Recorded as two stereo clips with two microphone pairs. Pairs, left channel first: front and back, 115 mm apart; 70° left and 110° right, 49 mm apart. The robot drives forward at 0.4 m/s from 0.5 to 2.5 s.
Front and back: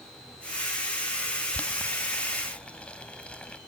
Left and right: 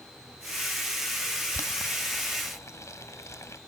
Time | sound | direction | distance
1.5 | boiling | 80° left | ?